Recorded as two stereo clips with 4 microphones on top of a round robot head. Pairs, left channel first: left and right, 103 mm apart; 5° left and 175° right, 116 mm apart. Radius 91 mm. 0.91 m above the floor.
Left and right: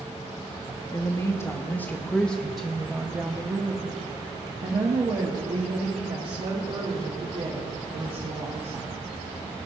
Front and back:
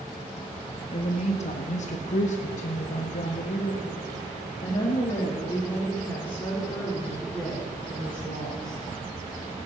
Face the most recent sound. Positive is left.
turn(degrees=-80)